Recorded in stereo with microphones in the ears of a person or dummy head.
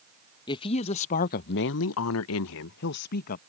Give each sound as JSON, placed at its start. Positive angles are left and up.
{"t": 0.5, "sound": "a woman speaking", "side_deg": 25}